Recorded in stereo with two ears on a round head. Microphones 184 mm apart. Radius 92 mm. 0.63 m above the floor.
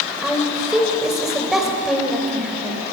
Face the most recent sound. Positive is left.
turn(degrees=0)  # may be behind; listen again after turning